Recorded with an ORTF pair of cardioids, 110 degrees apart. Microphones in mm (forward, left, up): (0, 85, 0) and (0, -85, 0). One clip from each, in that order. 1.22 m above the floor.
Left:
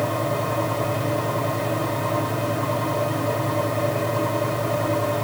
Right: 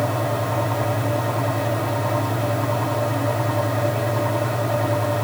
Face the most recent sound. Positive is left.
turn(degrees=0)